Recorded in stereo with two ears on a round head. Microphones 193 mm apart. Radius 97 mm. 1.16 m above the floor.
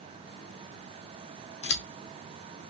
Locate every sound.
1.6 s scissors: 55° left (ahead or behind), 1.4 m